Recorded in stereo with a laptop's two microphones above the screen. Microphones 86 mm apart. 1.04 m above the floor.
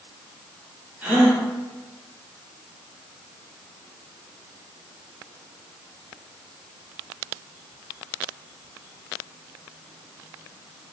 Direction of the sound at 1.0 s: 15° right (ahead or behind).